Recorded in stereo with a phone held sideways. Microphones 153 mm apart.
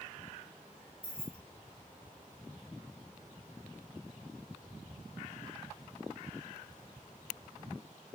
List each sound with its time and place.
1.0 s keys jangling: 35° left (ahead or behind), 1.0 m